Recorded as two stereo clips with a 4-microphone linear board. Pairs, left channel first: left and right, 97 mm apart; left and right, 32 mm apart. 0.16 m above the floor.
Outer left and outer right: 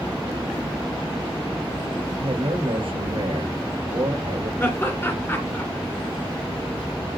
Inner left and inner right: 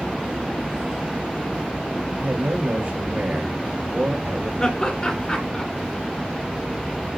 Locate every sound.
2.2 s a man speaking: 65° right (ahead or behind), 2.5 m
4.6 s laughter: 25° left (ahead or behind), 2.5 m